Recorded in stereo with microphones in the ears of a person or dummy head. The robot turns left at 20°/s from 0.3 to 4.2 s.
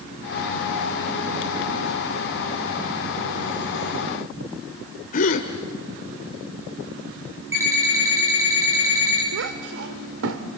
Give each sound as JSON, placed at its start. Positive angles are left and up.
{"t": 5.1, "sound": "a gasp", "side_deg": 45, "distance_m": 1.7}
{"t": 7.5, "sound": "an alarm clock", "side_deg": -20, "distance_m": 5.5}
{"t": 9.3, "sound": "a child speaking", "side_deg": -75, "distance_m": 2.0}